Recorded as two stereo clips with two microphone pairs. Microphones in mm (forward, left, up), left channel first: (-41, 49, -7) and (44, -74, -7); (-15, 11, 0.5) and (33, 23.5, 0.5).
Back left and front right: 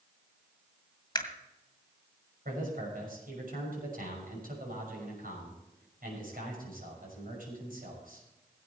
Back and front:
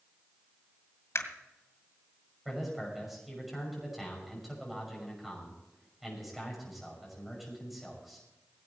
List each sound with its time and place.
1.1 s a camera shutter: 175° right, 1.9 m
2.5 s a man speaking: 70° right, 6 m